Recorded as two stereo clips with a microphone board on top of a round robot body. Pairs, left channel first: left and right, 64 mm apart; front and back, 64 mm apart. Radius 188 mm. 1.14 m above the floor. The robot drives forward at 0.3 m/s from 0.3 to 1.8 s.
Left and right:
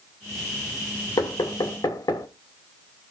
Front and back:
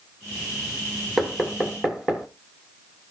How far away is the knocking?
About 1.6 m.